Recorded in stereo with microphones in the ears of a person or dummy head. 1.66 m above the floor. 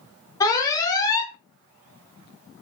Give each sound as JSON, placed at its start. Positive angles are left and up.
{"t": 0.4, "sound": "an alarm", "side_deg": 25, "distance_m": 0.9}